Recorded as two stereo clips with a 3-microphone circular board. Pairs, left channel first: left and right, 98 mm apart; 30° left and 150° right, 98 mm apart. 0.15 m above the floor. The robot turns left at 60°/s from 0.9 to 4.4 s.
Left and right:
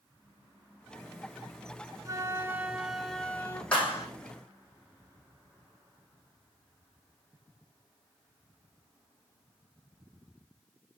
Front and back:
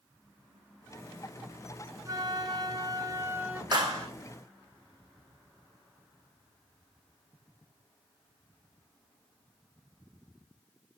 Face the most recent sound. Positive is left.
turn(degrees=125)